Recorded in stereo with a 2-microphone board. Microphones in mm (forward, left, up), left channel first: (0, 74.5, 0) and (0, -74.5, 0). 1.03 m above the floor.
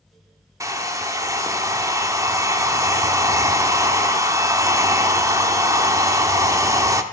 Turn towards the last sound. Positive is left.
turn(degrees=-20)  # may be behind; listen again after turning